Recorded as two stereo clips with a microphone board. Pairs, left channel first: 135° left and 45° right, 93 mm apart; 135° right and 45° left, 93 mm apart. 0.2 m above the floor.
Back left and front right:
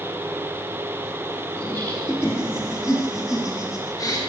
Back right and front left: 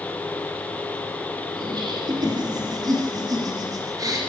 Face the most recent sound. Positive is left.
turn(degrees=90)